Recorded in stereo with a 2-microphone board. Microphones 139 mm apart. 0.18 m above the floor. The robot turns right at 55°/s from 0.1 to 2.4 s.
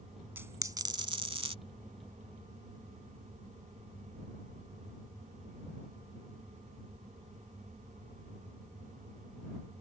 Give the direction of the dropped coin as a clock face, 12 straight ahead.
5 o'clock.